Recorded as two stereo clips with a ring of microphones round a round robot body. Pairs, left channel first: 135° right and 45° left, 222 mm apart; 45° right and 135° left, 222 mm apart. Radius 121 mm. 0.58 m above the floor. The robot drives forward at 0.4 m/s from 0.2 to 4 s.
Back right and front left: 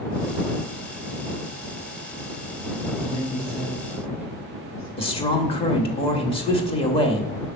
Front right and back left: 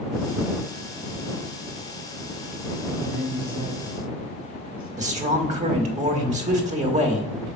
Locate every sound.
3.0 s a woman speaking: 145° left, 3 m; by 4.9 s 150° left, 3.5 m
5.0 s a man speaking: 175° left, 1.3 m